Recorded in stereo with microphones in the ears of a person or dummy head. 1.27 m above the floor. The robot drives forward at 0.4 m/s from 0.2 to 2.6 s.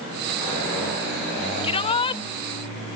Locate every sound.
1.6 s a shout: 30° left (ahead or behind); by 2.2 s 25° left (ahead or behind)